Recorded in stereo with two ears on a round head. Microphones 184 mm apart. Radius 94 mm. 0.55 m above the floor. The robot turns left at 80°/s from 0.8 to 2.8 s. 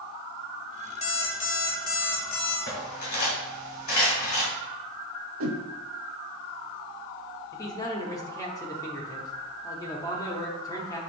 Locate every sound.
1.0 s an alarm clock: 145° left, 1.1 m; by 2.6 s 20° left, 1.1 m
2.7 s cutlery clinking: 55° left (ahead or behind), 2 m; by 4.5 s 45° left (ahead or behind), 2 m
5.4 s a whoosh: 75° right (ahead or behind), 0.6 m
7.5 s a man speaking: 15° left (ahead or behind), 0.8 m